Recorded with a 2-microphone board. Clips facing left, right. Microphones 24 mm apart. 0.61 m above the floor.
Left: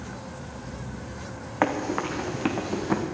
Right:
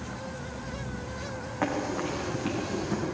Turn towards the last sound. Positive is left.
turn(degrees=70)  # may be behind; listen again after turning